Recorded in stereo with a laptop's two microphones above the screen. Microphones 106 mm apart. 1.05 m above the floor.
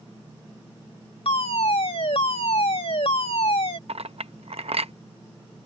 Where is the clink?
70° right (ahead or behind).